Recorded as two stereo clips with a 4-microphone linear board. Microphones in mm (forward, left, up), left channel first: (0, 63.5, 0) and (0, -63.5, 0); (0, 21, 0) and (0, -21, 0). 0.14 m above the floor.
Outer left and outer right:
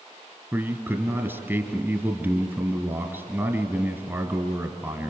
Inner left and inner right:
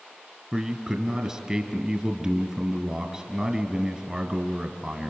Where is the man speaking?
15° right (ahead or behind), 1.7 m.